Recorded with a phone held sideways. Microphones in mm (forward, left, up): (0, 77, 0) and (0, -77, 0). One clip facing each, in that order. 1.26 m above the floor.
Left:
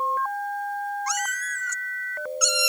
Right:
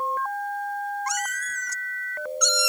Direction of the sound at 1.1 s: 50° right (ahead or behind).